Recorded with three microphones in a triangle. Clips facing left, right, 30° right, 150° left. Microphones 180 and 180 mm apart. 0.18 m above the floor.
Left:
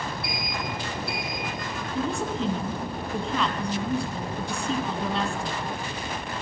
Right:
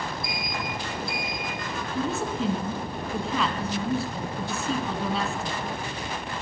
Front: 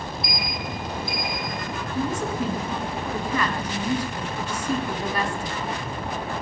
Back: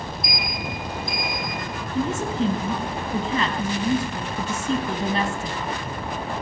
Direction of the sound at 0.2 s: 105° left.